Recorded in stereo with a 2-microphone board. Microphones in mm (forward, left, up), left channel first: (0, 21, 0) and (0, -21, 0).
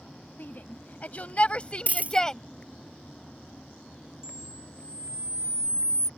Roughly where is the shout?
Left.